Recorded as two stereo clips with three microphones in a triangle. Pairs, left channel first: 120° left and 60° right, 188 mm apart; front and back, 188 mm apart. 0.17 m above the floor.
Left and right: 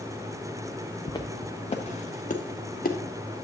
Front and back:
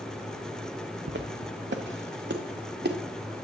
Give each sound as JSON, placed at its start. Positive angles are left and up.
{"t": 1.1, "sound": "footsteps", "azimuth_deg": -170, "distance_m": 0.9}